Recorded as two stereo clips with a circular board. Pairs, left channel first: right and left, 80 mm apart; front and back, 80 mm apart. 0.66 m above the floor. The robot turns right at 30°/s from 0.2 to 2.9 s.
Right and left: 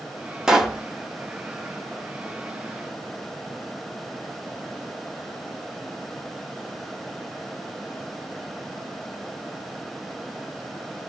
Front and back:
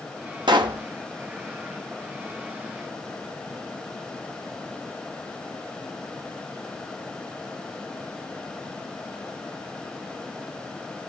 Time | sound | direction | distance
0.5 | a pop | 170° left | 0.6 m